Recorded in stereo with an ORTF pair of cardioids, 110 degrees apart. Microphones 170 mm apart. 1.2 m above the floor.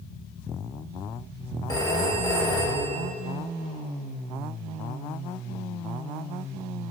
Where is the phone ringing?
20° left, 1.3 m.